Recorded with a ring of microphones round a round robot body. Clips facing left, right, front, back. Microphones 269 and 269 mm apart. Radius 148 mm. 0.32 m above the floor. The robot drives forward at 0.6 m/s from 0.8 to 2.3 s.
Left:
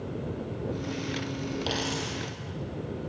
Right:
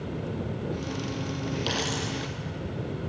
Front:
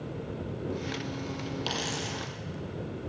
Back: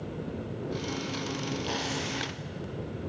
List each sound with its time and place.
1.7 s a dropped coin: 15° right, 6 m